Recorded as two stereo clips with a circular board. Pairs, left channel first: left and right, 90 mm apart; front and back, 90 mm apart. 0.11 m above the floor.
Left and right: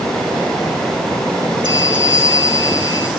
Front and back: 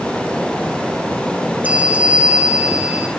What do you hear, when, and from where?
1.6 s a bell: 110° right, 2 m